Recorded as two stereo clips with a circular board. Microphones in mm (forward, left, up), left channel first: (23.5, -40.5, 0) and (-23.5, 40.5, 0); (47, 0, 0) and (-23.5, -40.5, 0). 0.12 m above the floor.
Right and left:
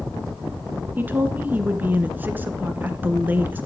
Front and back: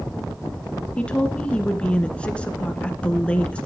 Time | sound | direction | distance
1.0 | a woman speaking | 80° left | 1.2 m